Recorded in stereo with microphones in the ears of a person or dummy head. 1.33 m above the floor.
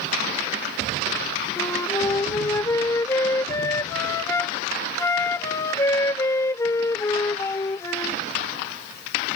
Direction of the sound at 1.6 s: 20° left (ahead or behind).